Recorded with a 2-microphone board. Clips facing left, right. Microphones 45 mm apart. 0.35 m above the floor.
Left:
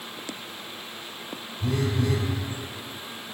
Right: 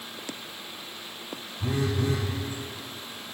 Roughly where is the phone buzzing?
Right.